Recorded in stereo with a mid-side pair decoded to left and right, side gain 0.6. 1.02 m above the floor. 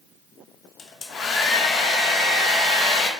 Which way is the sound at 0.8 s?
45° left.